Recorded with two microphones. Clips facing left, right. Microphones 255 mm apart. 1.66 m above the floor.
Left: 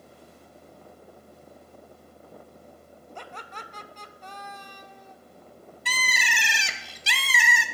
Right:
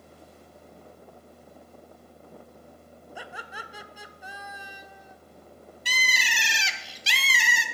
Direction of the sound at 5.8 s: 60° left (ahead or behind).